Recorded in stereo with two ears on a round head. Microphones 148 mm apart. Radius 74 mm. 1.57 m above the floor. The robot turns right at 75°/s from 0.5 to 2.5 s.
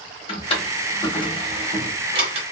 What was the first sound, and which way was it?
A drawer, 35° left (ahead or behind).